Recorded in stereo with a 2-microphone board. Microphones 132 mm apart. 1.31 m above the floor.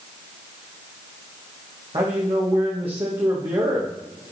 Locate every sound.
1.9 s a man speaking: 40° right (ahead or behind), 1.3 m